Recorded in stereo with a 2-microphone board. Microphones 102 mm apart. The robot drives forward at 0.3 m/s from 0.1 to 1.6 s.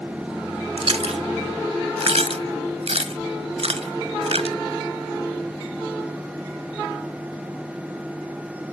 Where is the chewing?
80° right, 1.0 m; by 4.6 s 85° right, 1.0 m.